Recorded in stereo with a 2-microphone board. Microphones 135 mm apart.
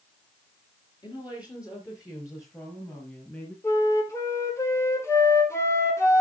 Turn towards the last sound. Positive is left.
turn(degrees=20)  # may be behind; listen again after turning